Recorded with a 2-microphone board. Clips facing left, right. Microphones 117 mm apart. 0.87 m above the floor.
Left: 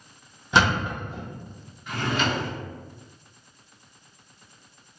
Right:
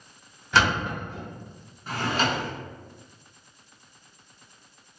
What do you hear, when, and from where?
0.5 s a thud: 20° left (ahead or behind), 0.8 m
1.9 s a drawer: 35° right (ahead or behind), 0.6 m